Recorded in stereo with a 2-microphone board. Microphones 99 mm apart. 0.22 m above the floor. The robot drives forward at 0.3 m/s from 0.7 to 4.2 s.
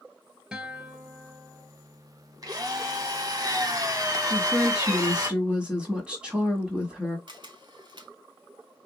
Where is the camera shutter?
50° right (ahead or behind), 0.7 m.